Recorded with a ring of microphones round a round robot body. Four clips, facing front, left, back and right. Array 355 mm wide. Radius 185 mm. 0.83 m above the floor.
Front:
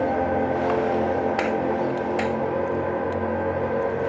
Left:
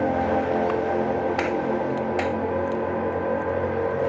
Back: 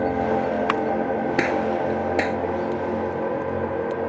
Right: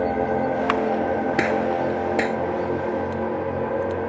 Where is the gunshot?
135° right.